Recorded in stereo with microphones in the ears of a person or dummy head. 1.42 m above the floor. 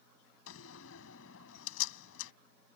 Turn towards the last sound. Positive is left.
turn(degrees=80)